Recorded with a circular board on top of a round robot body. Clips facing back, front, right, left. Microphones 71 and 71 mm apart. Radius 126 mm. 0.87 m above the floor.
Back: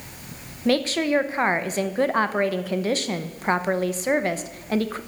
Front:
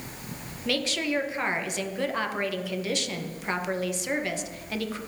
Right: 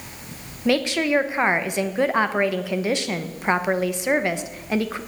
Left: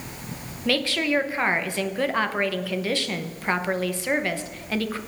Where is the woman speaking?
155° right, 1.1 m.